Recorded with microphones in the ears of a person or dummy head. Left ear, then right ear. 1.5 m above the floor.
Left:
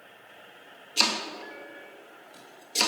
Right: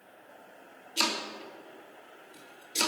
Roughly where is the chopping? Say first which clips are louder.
Left 4 dB; centre.